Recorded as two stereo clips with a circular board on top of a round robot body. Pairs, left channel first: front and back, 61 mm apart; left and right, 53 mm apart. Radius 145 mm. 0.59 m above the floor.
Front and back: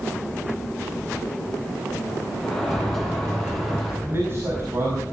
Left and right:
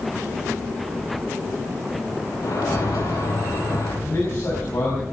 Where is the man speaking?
130° left, 6 m.